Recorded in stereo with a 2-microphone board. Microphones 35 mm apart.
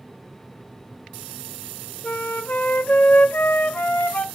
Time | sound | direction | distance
2.0 | a flute | 55° left (ahead or behind) | 1.0 m